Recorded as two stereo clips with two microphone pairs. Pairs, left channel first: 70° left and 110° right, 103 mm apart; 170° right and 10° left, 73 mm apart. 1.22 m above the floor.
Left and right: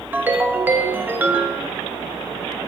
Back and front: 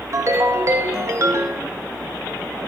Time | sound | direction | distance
0.1 | a ringtone | 35° right | 1.0 m